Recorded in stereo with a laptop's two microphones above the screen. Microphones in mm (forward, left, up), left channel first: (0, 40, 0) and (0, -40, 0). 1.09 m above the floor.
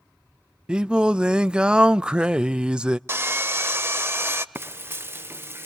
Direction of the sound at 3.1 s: 30° right (ahead or behind).